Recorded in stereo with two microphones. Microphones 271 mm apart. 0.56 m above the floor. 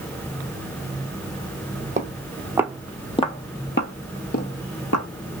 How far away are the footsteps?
About 0.9 m.